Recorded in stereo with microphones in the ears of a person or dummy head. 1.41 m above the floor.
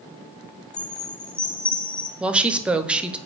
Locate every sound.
0.7 s a chime: 5° left (ahead or behind), 1.1 m
2.2 s a woman speaking: 5° right (ahead or behind), 0.6 m